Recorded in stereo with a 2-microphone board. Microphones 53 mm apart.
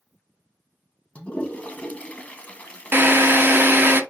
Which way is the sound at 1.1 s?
30° left (ahead or behind).